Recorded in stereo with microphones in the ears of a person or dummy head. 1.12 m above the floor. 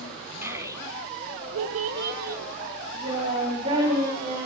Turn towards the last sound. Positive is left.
turn(degrees=-25)  # may be behind; listen again after turning